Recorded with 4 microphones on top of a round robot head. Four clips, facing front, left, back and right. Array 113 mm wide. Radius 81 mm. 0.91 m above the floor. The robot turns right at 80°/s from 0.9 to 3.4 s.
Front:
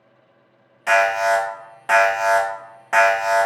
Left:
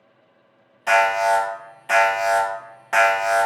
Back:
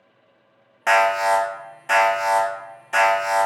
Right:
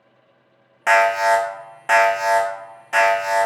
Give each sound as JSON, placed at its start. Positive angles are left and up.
{"t": 0.9, "sound": "an alarm", "azimuth_deg": -135, "distance_m": 0.8}